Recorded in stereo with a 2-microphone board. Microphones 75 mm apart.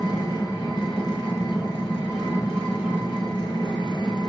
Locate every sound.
0.0 s an engine running: 85° left, 7 m